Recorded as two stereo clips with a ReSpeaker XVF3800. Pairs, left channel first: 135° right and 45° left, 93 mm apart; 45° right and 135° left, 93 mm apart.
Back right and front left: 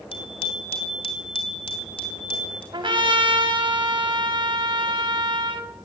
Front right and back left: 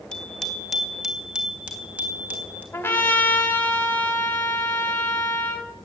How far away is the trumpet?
About 2.5 m.